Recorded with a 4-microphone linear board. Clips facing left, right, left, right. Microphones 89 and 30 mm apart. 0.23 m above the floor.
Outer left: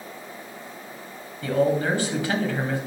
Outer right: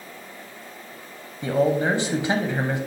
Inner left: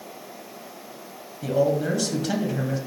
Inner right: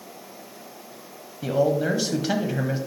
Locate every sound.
1.4 s a man speaking: 25° right (ahead or behind), 1.1 m